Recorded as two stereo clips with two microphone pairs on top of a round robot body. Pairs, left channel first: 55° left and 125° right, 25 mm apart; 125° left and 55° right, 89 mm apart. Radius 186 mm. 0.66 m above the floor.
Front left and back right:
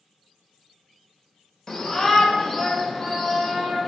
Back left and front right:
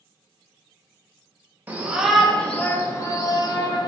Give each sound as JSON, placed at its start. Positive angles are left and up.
{"t": 1.7, "sound": "a shout", "azimuth_deg": 20, "distance_m": 0.9}